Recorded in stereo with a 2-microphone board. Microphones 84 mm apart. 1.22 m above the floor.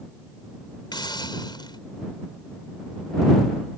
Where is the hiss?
55° left (ahead or behind).